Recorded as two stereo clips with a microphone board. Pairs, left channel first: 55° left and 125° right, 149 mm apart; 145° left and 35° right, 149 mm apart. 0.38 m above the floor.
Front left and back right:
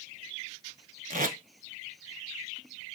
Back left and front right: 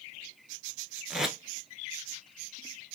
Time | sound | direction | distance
1.1 | tape being pulled | 120° right | 0.7 m